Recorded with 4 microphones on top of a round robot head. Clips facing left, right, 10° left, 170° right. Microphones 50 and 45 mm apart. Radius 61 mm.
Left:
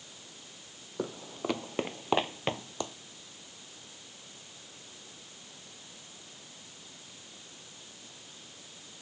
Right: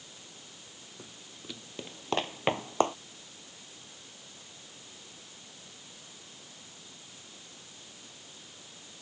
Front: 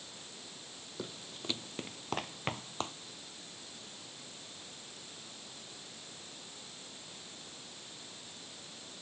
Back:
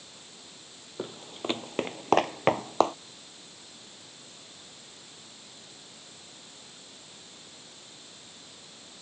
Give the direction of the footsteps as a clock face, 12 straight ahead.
8 o'clock.